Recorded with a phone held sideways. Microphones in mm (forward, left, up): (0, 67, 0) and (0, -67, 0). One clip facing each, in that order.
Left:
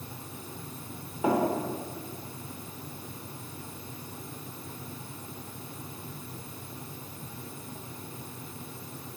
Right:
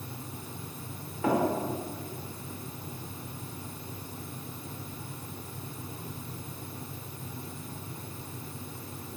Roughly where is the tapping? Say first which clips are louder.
Left 1 dB; centre.